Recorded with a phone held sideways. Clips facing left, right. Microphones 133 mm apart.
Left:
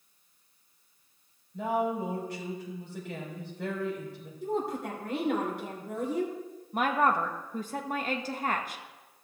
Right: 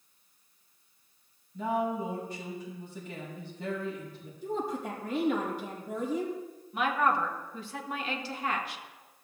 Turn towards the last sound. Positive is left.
turn(degrees=45)  # may be behind; listen again after turning